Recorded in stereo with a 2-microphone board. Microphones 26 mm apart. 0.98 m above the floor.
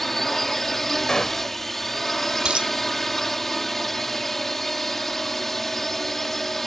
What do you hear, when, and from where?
0.0 s a drone: 10° left (ahead or behind)
1.1 s a gunshot: 25° left (ahead or behind)
2.5 s a dropped coin: 40° right (ahead or behind)